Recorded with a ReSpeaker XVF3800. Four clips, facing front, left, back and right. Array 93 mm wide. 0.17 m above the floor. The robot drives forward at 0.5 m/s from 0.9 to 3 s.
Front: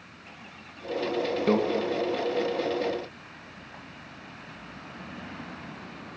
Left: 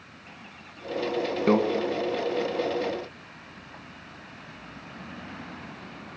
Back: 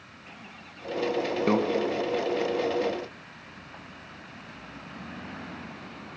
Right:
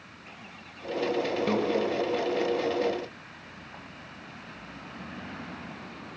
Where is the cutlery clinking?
I don't hear cutlery clinking.